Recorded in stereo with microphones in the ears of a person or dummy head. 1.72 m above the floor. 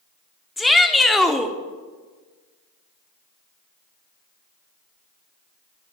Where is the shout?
Centre (ahead or behind), 0.7 m.